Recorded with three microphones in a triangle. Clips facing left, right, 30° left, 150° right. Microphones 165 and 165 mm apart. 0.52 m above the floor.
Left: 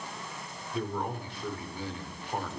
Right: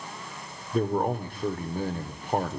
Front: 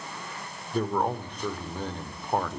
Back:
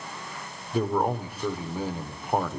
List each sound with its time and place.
0.7 s a man speaking: 70° right, 1.5 m